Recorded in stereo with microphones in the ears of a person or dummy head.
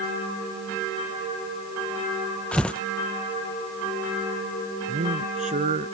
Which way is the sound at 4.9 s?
30° right (ahead or behind).